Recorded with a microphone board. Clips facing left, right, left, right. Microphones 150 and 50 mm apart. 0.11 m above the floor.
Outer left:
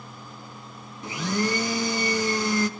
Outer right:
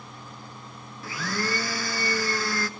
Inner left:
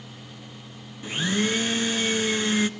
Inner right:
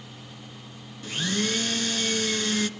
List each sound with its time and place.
1.0 s a blender: 20° left (ahead or behind), 0.7 m